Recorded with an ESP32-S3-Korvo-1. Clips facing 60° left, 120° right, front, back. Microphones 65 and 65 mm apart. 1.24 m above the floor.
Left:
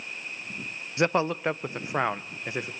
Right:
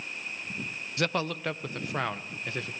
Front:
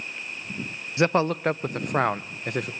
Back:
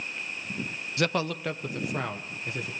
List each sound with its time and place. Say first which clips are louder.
1.0 s a man speaking: left 5 dB, front 6 dB; 30° left, 0.6 m; by 2.7 s 10° right, 1.3 m